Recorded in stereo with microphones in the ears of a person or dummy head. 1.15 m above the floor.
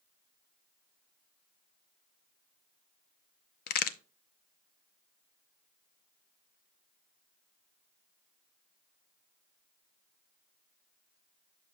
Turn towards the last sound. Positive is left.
turn(degrees=55)  # may be behind; listen again after turning